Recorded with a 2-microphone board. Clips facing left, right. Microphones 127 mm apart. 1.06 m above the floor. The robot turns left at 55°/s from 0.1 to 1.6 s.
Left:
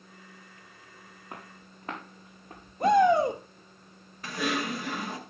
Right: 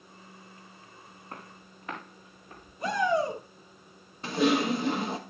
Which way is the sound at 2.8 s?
60° left (ahead or behind).